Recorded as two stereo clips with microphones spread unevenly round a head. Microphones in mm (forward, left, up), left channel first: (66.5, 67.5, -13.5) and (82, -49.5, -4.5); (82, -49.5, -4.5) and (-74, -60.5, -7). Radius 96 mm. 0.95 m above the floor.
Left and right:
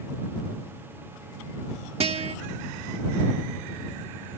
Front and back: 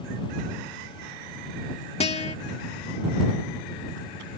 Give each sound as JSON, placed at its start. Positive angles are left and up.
{"t": 2.0, "sound": "a guitar", "azimuth_deg": -45}